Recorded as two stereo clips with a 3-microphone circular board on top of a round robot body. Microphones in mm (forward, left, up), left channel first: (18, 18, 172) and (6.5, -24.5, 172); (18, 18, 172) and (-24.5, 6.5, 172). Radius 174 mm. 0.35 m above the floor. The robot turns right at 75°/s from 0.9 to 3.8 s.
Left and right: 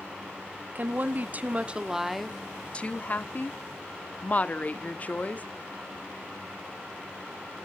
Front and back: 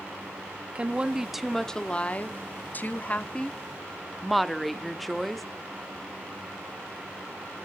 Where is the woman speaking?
115° right, 1.3 m; by 5.5 s 105° left, 1.3 m.